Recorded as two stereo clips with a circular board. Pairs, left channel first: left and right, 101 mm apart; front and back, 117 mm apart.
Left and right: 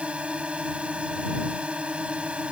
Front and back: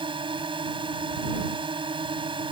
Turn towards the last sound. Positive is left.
turn(degrees=-165)